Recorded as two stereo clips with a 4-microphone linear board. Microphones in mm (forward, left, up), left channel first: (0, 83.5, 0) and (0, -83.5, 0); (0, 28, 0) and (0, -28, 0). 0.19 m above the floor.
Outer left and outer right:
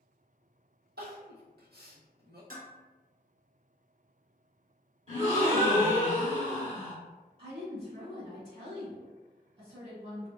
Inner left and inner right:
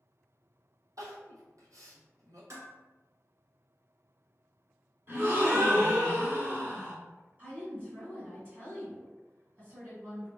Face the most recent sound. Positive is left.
turn(degrees=-35)  # may be behind; listen again after turning